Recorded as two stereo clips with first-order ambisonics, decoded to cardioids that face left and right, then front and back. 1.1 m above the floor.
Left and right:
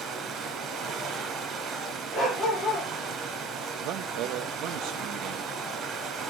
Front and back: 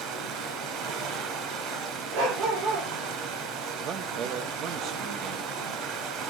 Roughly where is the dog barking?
Behind.